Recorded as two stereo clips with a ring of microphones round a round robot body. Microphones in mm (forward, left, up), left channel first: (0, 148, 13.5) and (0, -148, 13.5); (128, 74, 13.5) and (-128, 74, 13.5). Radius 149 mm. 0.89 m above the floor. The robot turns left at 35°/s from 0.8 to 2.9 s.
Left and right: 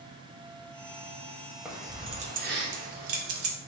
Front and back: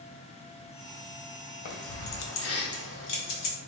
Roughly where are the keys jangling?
Ahead.